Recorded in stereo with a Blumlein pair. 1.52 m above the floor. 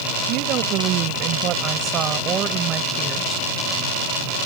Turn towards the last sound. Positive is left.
turn(degrees=-20)